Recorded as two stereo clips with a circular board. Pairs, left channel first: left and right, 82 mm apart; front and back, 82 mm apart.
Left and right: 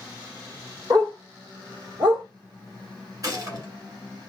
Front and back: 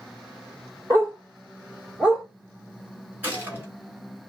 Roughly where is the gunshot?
Behind right.